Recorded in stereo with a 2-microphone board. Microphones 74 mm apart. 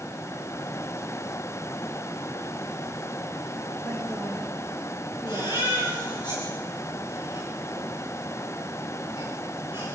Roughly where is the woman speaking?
Centre.